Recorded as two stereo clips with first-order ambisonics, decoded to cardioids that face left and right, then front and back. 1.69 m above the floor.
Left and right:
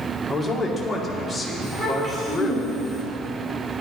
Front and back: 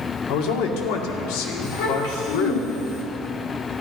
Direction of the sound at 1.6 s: 15° right.